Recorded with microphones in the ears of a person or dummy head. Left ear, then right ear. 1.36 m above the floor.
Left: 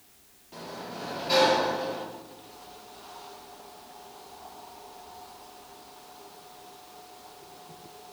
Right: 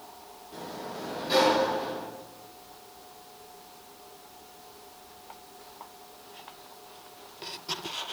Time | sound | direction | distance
0.5 | a sliding door | 15° left (ahead or behind) | 1.3 m